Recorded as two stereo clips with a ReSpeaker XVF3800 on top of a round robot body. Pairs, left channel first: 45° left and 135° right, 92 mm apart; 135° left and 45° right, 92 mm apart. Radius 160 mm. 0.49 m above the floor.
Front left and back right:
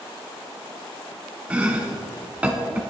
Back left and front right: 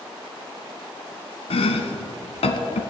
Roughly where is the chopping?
Behind left.